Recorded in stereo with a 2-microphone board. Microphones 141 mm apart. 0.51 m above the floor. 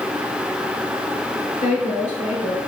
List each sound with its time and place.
1.6 s a woman speaking: 55° left (ahead or behind), 2 m